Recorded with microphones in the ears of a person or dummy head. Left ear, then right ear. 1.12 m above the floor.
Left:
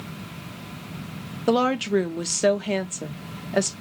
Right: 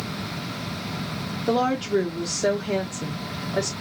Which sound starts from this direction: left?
A woman speaking, at 1.5 s.